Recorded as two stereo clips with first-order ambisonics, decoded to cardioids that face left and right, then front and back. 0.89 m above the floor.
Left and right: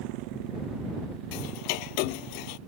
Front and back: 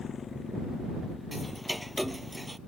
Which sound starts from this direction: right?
A motorcycle, at 0.0 s.